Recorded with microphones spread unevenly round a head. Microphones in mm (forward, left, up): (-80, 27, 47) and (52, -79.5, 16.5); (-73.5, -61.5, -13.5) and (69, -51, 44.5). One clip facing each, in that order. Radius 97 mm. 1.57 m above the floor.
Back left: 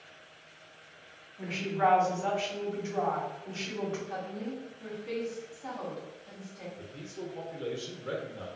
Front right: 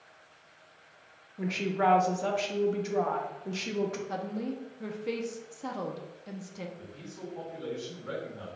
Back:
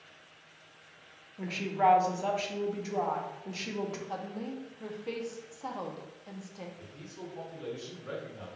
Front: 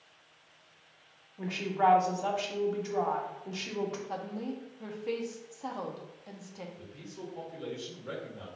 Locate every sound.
1.4 s a woman speaking: 85° right, 0.9 m
4.1 s a woman speaking: 65° right, 0.6 m
6.8 s a man speaking: 80° left, 1.1 m